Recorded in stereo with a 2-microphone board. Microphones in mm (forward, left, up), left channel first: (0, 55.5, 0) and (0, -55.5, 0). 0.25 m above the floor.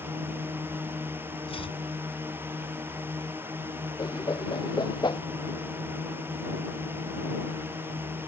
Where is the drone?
20° right (ahead or behind).